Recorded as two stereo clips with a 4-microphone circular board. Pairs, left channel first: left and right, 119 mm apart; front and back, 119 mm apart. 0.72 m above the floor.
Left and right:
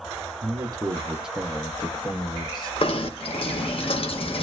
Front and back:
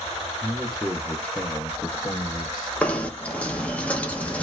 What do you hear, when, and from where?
0.4 s a man speaking: 110° right, 0.7 m; by 2.7 s 50° left, 1.1 m
2.8 s knocking: 75° left, 0.7 m